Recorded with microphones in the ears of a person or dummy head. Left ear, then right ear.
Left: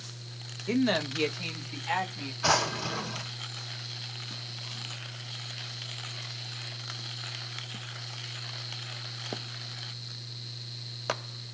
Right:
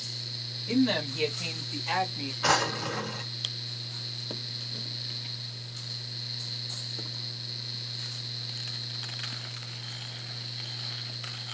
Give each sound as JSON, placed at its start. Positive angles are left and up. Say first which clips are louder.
{"t": 0.7, "sound": "a woman speaking", "louder": "even", "side_deg": 35, "distance_m": 1.0}
{"t": 2.4, "sound": "a drawer", "louder": "even", "side_deg": -10, "distance_m": 1.5}